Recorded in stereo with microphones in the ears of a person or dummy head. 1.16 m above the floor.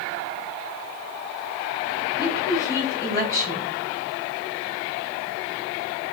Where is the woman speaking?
25° left (ahead or behind), 3 m.